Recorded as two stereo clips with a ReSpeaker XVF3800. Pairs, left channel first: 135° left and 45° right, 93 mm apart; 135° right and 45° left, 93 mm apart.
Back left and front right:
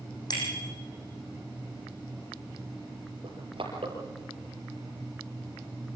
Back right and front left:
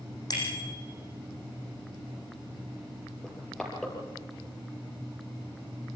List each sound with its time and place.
0.3 s a bicycle bell: straight behind, 7 m
3.2 s crushing: 50° right, 5 m